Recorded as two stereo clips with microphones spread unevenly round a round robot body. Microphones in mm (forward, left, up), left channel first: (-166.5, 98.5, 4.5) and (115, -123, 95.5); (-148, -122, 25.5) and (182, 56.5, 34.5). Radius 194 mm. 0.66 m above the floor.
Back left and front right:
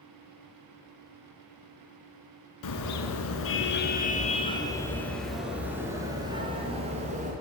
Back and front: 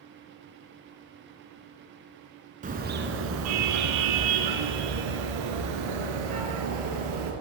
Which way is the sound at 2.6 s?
100° left.